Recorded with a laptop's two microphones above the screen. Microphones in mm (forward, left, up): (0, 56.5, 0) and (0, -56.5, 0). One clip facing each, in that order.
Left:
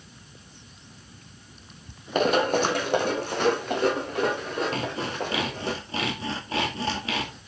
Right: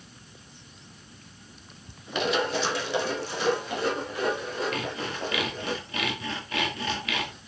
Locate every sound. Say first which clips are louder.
2.1 s running footsteps: left 5 dB; 45° left (ahead or behind), 1.4 m; by 5.7 s 55° left (ahead or behind), 6 m
4.7 s sawing: left 3 dB; 30° left (ahead or behind), 2.0 m